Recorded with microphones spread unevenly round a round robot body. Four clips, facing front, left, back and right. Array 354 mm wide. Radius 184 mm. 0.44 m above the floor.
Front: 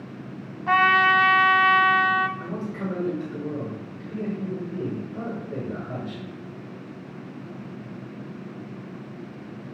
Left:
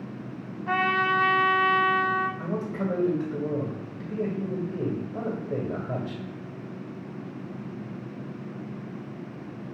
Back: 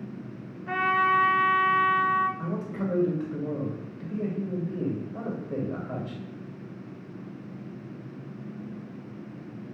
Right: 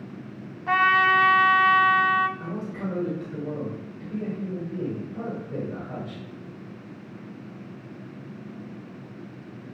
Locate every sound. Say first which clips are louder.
0.7 s a trumpet: right 4 dB, front 5 dB; 20° right, 0.6 m
2.4 s a man speaking: left 3 dB, front 1 dB; 105° left, 2 m